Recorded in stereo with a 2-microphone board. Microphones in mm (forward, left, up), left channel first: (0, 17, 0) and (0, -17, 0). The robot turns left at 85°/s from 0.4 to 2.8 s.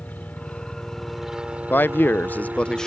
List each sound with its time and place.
0.0 s a helicopter: 60° left; by 2.9 s 140° right
1.7 s a man speaking: 115° left; by 2.9 s 20° left